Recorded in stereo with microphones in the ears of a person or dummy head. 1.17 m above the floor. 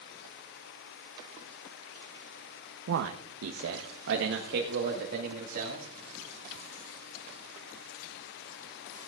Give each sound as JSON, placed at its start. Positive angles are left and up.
{"t": 2.9, "sound": "a man speaking", "side_deg": -70, "distance_m": 0.7}